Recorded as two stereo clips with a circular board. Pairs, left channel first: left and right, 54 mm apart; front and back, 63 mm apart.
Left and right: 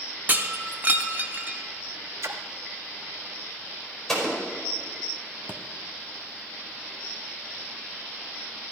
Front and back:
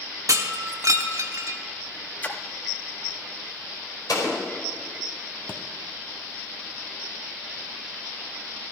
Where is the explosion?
5° left, 4.5 m.